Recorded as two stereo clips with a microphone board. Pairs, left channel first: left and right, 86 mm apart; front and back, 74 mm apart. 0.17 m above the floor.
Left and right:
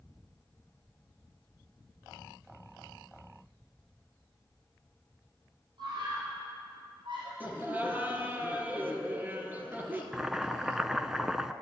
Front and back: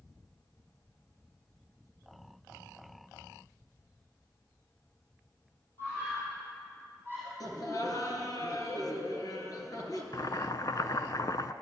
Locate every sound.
5.8 s a scream: 60° right, 5 m; by 7.3 s 65° right, 5.5 m
7.4 s laughter: 20° right, 3 m
10.1 s boiling: 5° right, 0.6 m